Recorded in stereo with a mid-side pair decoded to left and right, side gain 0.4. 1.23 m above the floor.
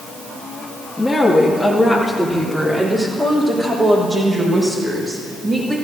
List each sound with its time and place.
1.0 s a woman speaking: 20° left, 1.9 m; by 5.7 s 40° right, 7 m